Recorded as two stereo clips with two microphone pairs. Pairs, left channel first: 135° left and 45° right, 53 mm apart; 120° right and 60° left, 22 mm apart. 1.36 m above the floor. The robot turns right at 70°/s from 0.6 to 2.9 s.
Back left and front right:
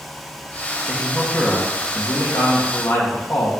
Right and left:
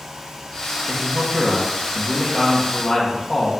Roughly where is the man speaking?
Ahead left.